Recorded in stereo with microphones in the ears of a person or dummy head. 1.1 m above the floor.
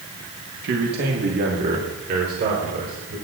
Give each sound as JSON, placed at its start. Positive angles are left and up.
{"t": 0.6, "sound": "a man speaking", "side_deg": -60, "distance_m": 1.5}